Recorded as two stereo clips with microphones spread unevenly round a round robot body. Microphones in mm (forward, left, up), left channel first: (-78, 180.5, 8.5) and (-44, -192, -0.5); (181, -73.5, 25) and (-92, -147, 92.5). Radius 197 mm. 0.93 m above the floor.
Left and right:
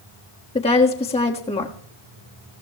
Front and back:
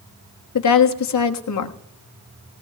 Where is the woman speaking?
20° left, 1.4 m.